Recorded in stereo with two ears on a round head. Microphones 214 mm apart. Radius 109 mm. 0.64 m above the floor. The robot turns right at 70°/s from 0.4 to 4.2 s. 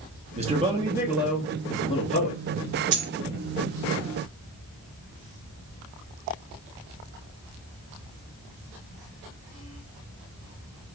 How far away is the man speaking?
About 0.6 m.